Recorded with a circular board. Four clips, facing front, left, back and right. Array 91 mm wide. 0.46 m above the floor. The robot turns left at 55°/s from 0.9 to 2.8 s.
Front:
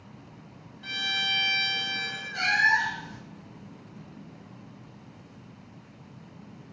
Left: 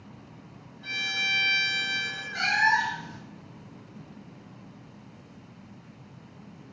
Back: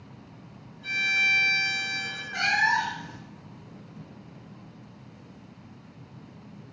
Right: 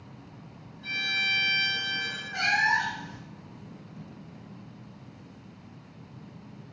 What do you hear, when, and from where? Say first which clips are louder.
0.8 s a violin: right 1 dB, back 4 dB; 5° left, 0.7 m; by 2.2 s 65° right, 0.7 m
2.3 s a cat meowing: left 2 dB, even; 165° right, 0.7 m; by 3.2 s 170° left, 0.7 m